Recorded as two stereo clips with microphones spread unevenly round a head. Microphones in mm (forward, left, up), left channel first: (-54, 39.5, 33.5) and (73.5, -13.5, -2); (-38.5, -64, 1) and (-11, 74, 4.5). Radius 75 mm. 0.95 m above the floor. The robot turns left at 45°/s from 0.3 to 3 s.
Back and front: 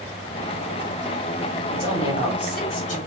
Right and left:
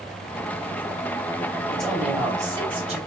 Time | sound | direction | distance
1.7 | a woman speaking | 175° left | 2 m